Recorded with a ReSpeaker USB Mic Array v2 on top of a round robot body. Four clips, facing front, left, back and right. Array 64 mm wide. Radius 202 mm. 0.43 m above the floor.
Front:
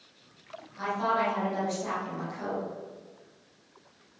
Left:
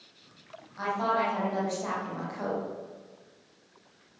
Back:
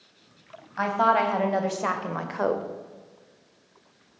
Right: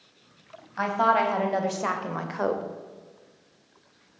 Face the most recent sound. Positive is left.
turn(degrees=-145)